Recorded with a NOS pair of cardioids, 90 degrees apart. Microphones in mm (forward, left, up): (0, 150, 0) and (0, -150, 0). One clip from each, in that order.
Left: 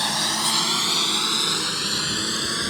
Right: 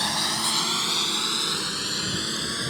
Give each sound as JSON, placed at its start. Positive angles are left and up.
{"t": 0.0, "sound": "a lawn mower", "azimuth_deg": 20}